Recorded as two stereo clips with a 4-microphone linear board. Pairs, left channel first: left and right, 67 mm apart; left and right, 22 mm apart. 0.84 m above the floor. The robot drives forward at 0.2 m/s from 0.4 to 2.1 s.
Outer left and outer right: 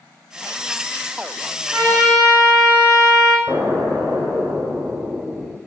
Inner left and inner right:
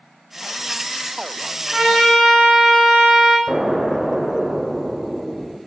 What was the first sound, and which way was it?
A trumpet, 75° right (ahead or behind).